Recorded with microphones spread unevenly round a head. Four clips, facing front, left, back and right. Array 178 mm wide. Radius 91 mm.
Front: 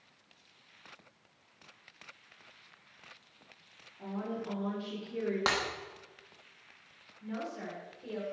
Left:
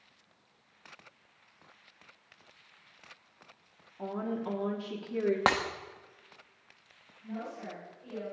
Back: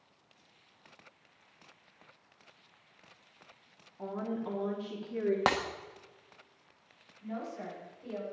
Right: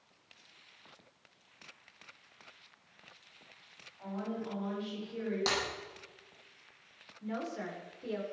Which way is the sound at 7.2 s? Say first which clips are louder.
Right 2 dB, even; 85° right.